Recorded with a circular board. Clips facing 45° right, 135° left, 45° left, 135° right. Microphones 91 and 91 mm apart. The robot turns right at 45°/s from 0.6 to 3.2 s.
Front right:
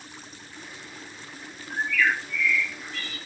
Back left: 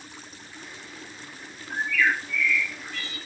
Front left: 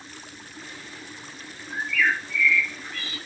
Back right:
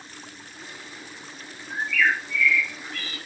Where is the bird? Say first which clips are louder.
Even, back right 1 dB; 150° right, 1.1 m; by 3.2 s 85° right, 1.1 m.